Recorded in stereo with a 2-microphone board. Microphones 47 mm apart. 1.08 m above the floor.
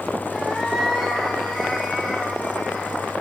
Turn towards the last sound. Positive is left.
turn(degrees=0)  # may be behind; listen again after turning